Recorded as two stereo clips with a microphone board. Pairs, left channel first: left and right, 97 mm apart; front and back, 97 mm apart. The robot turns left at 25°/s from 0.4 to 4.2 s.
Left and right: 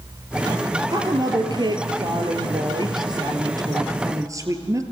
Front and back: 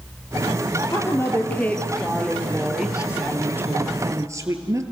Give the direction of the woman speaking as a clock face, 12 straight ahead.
2 o'clock.